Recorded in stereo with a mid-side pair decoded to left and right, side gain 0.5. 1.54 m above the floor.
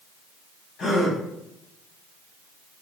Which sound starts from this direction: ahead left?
A gasp, at 0.8 s.